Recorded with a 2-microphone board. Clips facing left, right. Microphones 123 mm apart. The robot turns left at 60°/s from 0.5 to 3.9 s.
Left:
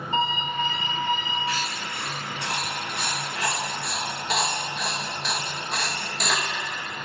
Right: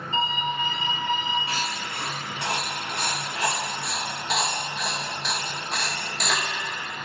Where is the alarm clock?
45° left, 3.5 m; by 1.4 s 10° right, 3.5 m.